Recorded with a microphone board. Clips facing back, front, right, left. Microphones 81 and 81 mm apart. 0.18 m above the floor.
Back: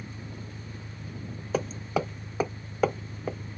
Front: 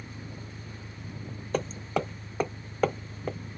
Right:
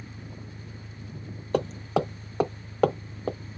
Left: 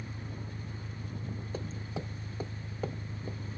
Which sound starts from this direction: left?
An engine running, at 0.0 s.